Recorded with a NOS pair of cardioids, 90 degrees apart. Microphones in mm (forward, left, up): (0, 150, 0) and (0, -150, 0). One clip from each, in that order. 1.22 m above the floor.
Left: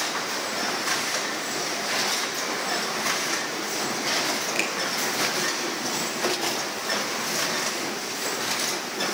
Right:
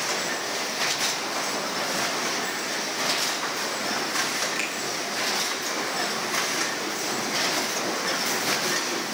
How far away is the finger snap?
About 3.5 m.